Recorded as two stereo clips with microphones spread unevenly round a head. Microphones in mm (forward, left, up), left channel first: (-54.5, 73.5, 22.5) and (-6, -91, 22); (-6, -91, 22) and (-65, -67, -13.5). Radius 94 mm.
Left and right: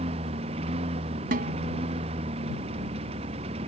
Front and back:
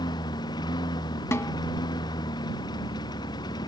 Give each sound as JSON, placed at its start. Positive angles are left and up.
{"t": 0.0, "sound": "a lawn mower", "azimuth_deg": -10}
{"t": 1.3, "sound": "a snare drum", "azimuth_deg": -25}